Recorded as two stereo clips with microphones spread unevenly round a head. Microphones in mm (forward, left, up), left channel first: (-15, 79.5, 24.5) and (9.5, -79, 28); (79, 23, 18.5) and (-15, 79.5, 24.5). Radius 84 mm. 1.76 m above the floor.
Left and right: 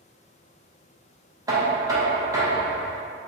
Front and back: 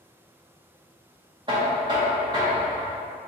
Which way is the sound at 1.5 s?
150° right.